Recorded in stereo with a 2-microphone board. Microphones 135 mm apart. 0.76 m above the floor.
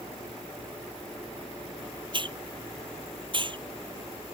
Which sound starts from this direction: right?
A hiss, at 2.1 s.